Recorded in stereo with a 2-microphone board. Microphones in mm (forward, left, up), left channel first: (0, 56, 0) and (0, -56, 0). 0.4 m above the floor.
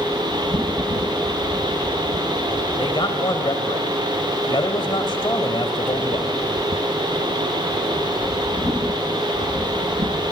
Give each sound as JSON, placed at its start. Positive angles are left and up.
{"t": 2.8, "sound": "a man speaking", "side_deg": 45, "distance_m": 1.7}